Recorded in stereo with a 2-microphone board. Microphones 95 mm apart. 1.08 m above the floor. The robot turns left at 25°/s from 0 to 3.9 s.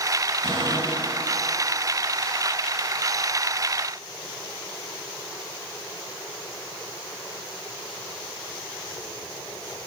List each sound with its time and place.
0.4 s a cupboard door: 65° right (ahead or behind), 8 m; by 1.2 s 50° right (ahead or behind), 8 m